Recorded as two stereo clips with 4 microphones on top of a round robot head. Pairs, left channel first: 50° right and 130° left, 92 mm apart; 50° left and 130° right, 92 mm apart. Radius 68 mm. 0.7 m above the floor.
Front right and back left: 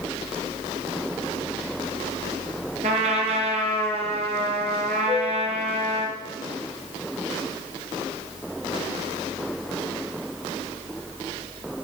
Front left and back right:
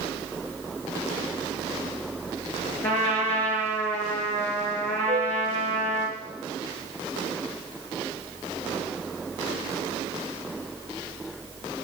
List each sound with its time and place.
2.8 s a trumpet: 120° left, 5.5 m
5.1 s a flute: 105° right, 1.3 m